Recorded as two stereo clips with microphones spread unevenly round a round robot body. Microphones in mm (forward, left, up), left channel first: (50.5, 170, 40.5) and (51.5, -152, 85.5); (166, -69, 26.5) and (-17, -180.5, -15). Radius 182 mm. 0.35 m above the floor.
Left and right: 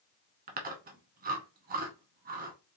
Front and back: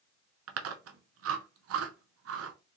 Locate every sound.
0.5 s chewing: 155° right, 0.6 m